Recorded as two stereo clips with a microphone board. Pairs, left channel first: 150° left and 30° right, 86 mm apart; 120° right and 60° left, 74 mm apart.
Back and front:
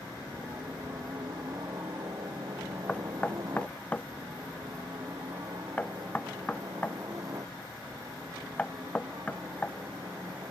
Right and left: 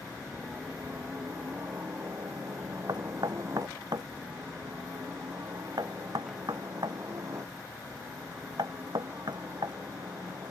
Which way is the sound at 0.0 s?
5° left.